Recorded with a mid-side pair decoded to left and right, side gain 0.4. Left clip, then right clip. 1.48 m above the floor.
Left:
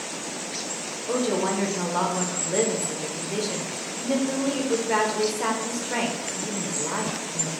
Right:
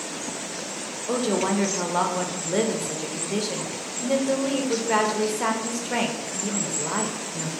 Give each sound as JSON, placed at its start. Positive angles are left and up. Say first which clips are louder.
{"t": 1.1, "sound": "a woman speaking", "louder": "right 1 dB", "azimuth_deg": -20, "distance_m": 0.8}